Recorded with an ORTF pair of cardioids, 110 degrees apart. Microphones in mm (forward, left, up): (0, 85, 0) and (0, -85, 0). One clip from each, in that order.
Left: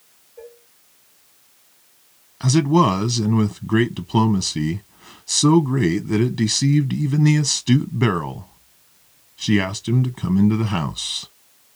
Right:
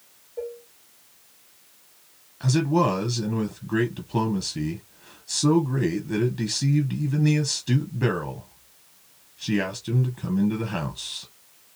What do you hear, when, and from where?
0.4 s dishes clattering: 65° right, 2 m
2.4 s a man speaking: 30° left, 0.8 m